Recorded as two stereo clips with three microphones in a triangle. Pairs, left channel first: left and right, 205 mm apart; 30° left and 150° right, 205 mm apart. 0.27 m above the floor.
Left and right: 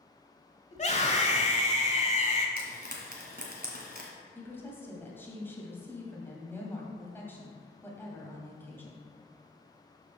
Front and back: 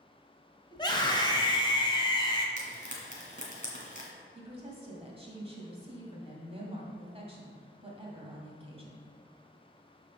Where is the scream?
80° left, 1.4 m.